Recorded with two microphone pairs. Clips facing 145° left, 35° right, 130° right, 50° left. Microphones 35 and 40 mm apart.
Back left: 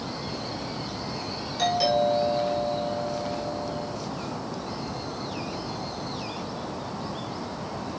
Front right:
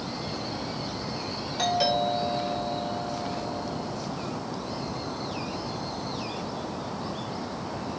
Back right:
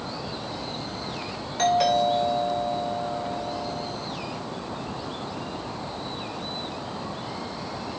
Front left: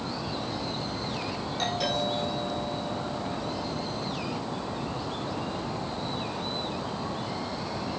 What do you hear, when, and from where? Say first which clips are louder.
1.6 s a doorbell: back left 2 dB, back right 9 dB; 110° right, 7 m